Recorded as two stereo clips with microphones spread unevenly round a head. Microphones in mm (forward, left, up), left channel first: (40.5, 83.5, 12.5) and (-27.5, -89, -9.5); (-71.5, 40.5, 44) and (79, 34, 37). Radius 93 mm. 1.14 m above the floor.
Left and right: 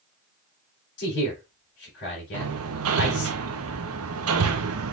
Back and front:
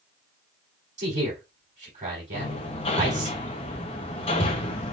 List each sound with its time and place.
1.0 s a man speaking: 40° left, 3.5 m
2.3 s hammering: 125° right, 0.8 m